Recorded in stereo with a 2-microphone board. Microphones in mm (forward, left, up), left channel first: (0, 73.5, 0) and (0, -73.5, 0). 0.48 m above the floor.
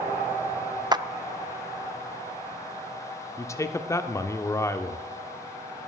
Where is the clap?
30° right (ahead or behind), 0.5 m.